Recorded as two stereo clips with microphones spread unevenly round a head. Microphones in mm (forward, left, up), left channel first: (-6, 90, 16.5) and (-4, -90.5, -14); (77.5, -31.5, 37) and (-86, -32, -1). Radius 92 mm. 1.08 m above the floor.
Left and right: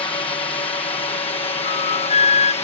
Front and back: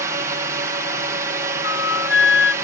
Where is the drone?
150° left; by 2.6 s 140° left.